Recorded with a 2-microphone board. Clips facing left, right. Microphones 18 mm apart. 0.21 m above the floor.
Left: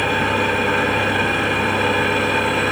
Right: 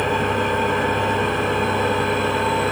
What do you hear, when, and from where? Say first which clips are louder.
0.0 s an engine running: left 2 dB; 65° left (ahead or behind), 1.9 m